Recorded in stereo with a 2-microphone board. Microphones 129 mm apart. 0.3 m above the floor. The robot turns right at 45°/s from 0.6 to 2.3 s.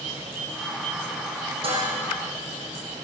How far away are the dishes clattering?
About 7.5 m.